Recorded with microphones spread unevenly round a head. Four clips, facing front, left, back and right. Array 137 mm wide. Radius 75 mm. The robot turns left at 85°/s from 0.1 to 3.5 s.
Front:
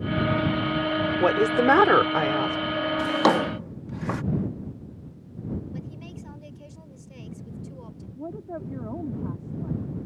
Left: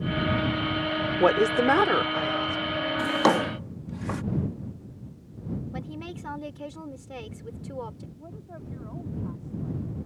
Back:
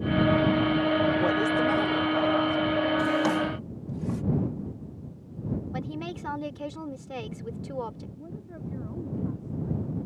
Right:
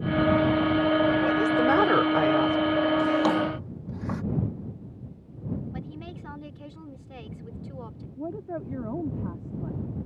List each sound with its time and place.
1.2 s a woman speaking: 60° left; by 2.6 s 55° right
3.0 s a drawer: 60° left; by 4.2 s 20° left
5.7 s a woman speaking: 165° left
8.2 s a woman speaking: 60° right